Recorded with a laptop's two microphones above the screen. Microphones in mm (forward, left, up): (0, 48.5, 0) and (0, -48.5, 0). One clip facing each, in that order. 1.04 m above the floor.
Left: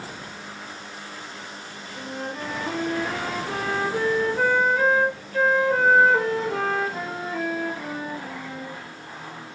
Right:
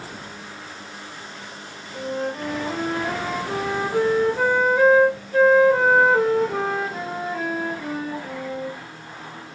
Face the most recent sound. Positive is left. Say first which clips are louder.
# right 6 dB
turn(degrees=-10)  # may be behind; listen again after turning